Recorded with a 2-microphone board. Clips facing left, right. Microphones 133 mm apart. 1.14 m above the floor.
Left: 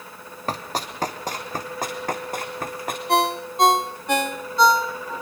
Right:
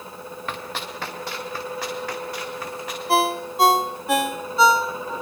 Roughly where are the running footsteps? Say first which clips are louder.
Left 5 dB; left.